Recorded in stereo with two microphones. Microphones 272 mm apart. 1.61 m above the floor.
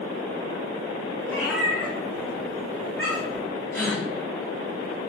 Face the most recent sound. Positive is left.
turn(degrees=10)  # may be behind; listen again after turning